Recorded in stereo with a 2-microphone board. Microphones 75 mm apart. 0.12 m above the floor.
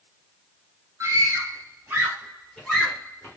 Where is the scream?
40° right (ahead or behind), 1.7 m; by 3.4 s 25° left (ahead or behind), 1.3 m.